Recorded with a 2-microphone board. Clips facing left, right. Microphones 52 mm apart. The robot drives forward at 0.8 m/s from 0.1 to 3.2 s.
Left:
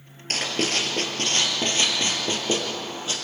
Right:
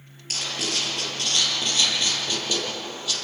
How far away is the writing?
About 3.5 m.